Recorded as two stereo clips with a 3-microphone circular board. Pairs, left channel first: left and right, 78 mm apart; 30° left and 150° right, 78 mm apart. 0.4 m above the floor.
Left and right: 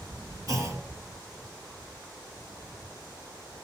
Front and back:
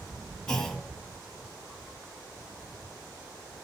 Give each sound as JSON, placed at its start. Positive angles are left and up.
{"t": 0.5, "sound": "a clunk", "azimuth_deg": -50, "distance_m": 2.0}